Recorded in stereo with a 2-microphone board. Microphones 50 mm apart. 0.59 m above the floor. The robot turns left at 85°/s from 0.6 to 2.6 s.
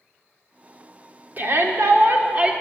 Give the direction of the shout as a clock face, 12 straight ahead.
2 o'clock.